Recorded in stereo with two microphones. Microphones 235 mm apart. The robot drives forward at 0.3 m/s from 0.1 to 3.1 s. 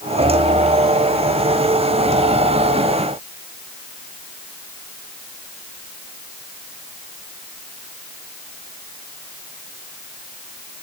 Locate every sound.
Only background noise.